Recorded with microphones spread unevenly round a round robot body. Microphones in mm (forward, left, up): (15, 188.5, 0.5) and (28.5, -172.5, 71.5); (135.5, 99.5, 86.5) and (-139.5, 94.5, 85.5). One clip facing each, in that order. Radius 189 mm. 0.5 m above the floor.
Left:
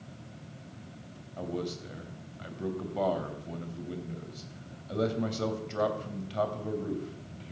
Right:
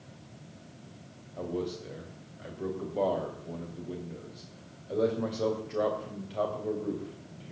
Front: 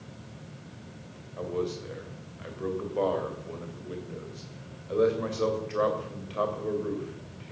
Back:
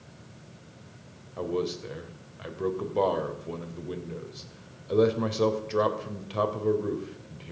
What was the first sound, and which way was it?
A man speaking, 150° left.